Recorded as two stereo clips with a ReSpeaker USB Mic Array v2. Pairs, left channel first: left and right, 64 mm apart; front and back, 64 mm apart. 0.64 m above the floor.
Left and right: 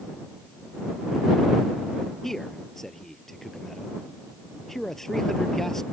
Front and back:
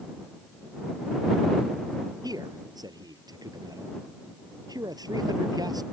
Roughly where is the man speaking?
Behind.